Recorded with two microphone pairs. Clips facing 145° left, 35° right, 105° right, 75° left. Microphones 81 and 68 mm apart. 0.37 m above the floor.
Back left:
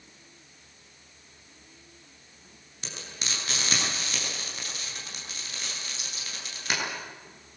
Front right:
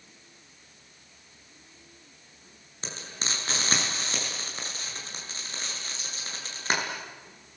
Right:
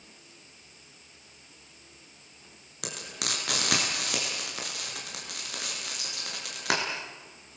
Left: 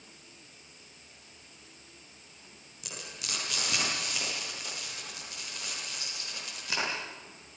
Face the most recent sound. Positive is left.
turn(degrees=-90)